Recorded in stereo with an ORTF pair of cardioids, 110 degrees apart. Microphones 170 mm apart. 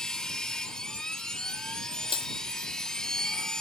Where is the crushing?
35° left.